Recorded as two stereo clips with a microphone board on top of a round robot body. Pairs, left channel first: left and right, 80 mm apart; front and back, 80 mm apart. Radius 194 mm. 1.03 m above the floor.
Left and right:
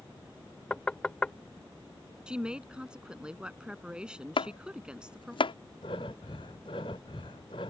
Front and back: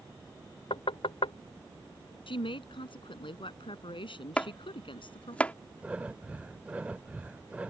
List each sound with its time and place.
0.7 s knocking: 10° left
2.3 s a woman speaking: 10° right
4.4 s chopping: 75° left
5.8 s breathing: 105° left